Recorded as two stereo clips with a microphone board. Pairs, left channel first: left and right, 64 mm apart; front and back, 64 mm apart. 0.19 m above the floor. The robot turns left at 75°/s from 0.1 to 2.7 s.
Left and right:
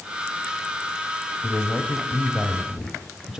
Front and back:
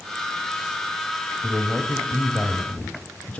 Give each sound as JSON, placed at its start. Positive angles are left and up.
{"t": 1.4, "sound": "a man speaking", "azimuth_deg": 70, "distance_m": 1.0}